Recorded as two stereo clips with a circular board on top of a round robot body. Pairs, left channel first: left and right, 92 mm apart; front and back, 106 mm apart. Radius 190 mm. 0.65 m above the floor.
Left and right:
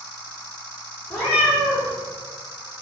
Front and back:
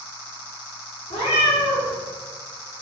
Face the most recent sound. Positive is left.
turn(degrees=20)